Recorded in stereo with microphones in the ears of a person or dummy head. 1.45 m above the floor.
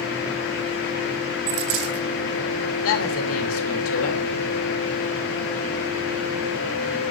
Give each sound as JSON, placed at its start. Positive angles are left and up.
{"t": 1.5, "sound": "a dropped coin", "side_deg": -75, "distance_m": 6.0}
{"t": 2.8, "sound": "a woman speaking", "side_deg": 80, "distance_m": 2.0}